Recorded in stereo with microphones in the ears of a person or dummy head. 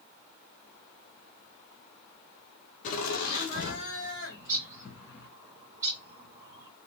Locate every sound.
2.8 s laughter: 40° left (ahead or behind), 0.7 m; by 5.3 s 55° left (ahead or behind), 2.5 m
4.3 s a bird: 20° right (ahead or behind), 1.1 m